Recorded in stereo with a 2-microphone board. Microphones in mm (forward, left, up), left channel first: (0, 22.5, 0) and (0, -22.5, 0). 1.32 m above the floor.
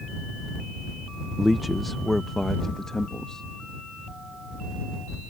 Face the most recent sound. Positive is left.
turn(degrees=15)  # may be behind; listen again after turning